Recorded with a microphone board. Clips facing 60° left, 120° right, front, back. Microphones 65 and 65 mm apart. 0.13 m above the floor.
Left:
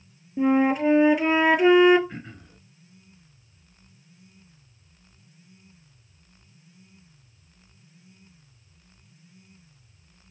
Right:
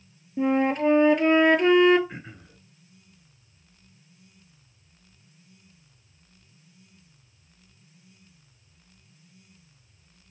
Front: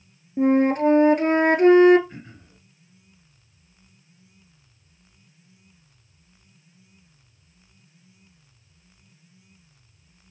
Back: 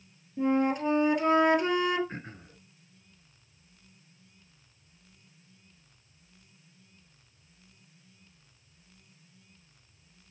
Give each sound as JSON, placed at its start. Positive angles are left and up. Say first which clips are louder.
{"t": 0.4, "sound": "a flute", "louder": "left 2 dB, front 8 dB", "azimuth_deg": -25, "distance_m": 1.0}
{"t": 2.1, "sound": "throat clearing", "louder": "left 1 dB, back 1 dB", "azimuth_deg": 165, "distance_m": 1.6}